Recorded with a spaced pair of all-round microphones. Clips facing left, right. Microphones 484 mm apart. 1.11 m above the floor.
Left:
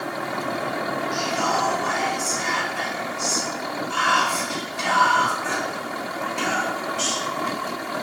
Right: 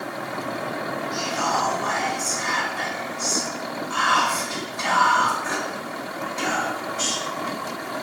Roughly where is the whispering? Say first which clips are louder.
Left 2 dB; left.